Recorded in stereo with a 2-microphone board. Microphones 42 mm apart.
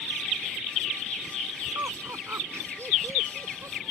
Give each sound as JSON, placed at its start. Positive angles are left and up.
{"t": 1.8, "sound": "laughter", "side_deg": -80}